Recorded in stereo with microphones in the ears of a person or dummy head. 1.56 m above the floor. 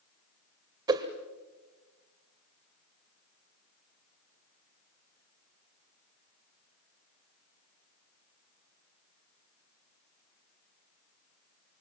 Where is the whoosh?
25° right (ahead or behind), 1.9 m.